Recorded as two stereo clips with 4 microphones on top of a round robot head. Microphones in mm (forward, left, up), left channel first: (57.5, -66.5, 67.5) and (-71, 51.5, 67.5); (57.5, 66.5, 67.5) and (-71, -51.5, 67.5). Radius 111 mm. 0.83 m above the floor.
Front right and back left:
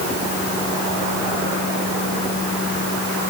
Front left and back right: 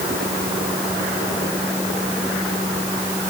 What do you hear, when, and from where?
Only background noise.